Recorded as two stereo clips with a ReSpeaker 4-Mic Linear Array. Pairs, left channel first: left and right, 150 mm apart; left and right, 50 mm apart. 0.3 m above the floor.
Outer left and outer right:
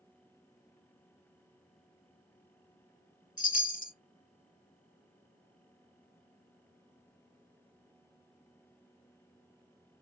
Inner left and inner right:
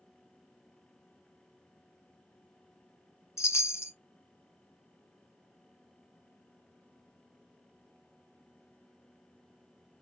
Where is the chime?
65° left (ahead or behind), 0.9 m.